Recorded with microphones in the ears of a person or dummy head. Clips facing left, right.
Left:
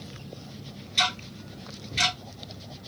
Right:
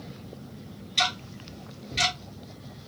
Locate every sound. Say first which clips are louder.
1.0 s ticking: even; 5° left (ahead or behind), 1.7 m